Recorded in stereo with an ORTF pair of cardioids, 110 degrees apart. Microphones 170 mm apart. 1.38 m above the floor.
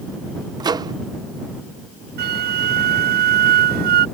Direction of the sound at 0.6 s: 25° right.